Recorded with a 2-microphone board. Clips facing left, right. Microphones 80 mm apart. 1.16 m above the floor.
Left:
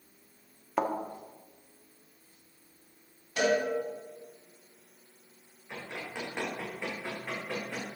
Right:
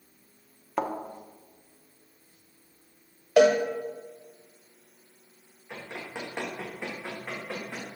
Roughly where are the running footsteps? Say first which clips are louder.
Right 1 dB; centre.